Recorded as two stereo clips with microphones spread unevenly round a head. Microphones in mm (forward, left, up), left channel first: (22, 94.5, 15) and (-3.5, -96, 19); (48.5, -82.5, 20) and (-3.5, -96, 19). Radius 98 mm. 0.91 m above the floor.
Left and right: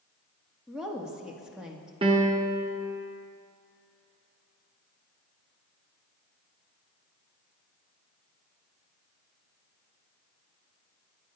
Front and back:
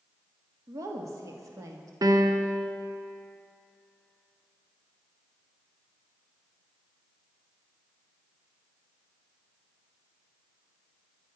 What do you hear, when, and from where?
0.7 s a woman speaking: 175° left, 1.7 m
2.0 s a piano: 165° right, 1.1 m